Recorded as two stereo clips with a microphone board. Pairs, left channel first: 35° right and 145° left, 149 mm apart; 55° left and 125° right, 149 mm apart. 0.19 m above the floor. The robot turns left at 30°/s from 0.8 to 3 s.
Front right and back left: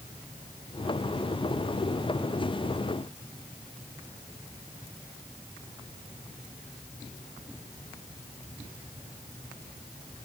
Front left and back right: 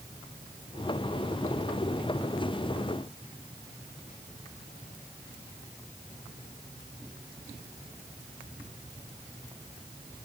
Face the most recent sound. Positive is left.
No sound to turn to.